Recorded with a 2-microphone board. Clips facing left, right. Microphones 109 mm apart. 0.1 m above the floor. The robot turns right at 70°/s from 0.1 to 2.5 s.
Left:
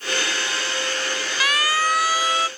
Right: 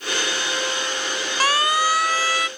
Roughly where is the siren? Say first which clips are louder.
Right 3 dB; right.